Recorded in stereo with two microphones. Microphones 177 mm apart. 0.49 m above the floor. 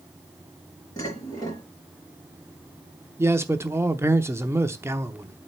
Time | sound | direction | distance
1.0 | dishes clattering | 20° left (ahead or behind) | 4.5 m
3.2 | a man speaking | 15° right (ahead or behind) | 0.7 m